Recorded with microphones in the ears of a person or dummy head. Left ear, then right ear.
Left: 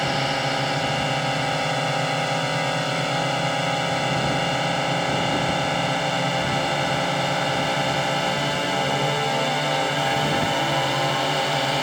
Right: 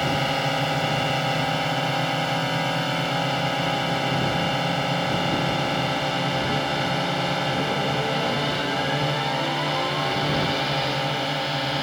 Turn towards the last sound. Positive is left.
turn(degrees=15)  # may be behind; listen again after turning